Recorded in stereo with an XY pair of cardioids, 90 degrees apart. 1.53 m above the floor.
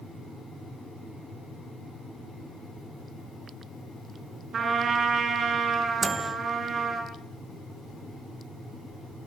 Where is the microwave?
30° right, 1.3 m.